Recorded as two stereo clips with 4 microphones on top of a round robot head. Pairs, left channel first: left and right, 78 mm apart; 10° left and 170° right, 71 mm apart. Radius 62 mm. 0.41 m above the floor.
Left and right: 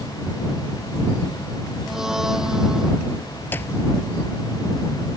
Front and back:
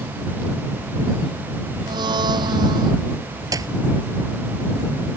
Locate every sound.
1.9 s a blender: 175° right
3.5 s a clap: 160° left